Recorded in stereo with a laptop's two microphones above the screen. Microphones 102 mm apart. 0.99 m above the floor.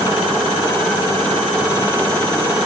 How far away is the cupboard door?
I don't hear a cupboard door.